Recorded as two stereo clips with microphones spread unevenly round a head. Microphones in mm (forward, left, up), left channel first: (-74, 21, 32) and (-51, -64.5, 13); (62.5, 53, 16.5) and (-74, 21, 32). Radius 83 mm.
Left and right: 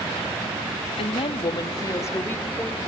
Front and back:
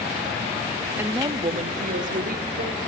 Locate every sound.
1.0 s a woman speaking: 115° left, 1.4 m; by 2.8 s 175° right, 3 m